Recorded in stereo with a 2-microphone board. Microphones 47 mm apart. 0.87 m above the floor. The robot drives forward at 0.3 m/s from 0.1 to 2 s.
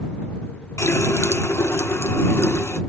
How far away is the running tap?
About 1.0 m.